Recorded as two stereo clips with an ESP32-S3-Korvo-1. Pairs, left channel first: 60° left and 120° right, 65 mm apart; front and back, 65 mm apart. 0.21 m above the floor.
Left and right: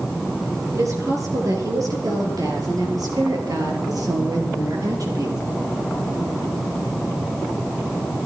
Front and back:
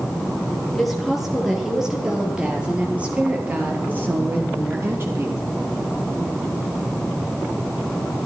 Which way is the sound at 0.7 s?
90° right.